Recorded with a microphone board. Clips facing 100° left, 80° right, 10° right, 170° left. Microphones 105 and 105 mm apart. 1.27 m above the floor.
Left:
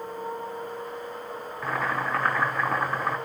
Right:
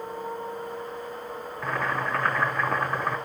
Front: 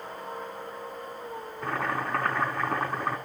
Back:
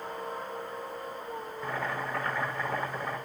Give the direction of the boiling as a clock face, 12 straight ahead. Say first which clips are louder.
Even, front 4 dB; 11 o'clock.